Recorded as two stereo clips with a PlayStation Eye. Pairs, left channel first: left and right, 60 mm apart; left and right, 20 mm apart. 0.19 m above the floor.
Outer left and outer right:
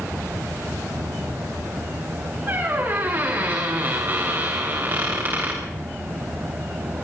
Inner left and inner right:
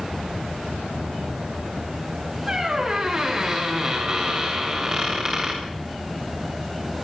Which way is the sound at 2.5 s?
40° right (ahead or behind).